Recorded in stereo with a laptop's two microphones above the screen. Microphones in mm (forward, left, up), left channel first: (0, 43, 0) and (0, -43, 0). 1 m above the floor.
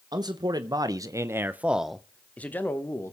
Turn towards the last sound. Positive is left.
turn(degrees=30)  # may be behind; listen again after turning